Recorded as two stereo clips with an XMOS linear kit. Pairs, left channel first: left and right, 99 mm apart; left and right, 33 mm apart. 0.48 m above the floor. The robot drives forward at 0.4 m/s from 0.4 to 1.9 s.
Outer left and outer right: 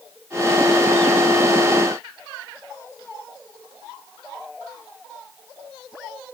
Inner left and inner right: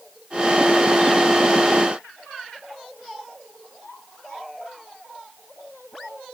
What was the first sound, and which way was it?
Only background noise.